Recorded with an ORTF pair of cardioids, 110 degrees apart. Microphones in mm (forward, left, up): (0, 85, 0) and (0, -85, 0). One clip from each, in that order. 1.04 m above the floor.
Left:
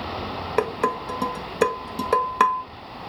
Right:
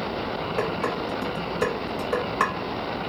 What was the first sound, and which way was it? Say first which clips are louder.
Dishes clattering: left 5 dB; 50° left.